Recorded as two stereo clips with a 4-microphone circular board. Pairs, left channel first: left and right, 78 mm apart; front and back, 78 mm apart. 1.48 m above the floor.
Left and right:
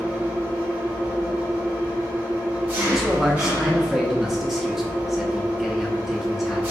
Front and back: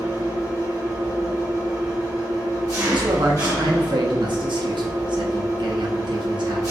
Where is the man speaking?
175° right, 0.5 m.